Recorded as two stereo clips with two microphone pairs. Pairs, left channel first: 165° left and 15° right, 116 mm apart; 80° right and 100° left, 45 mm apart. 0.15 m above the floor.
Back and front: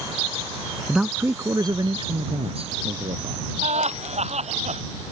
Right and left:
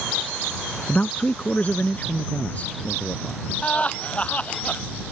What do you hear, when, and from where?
0.9 s a man speaking: 100° right; by 3.5 s 20° right
3.6 s laughter: 20° right